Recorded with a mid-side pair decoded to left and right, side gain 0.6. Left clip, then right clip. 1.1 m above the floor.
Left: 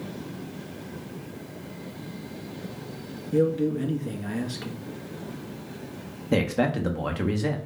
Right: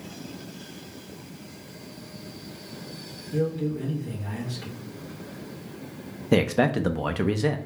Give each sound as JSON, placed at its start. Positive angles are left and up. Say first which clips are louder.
{"t": 3.3, "sound": "a man speaking", "louder": "left 5 dB", "azimuth_deg": 35, "distance_m": 1.8}
{"t": 6.3, "sound": "a man speaking", "louder": "right 3 dB", "azimuth_deg": -20, "distance_m": 0.8}